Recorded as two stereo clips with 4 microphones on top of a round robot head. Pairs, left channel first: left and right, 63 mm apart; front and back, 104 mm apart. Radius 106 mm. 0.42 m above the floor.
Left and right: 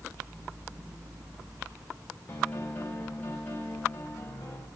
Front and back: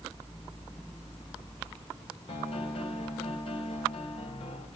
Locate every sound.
2.3 s a piano: 25° left, 2.5 m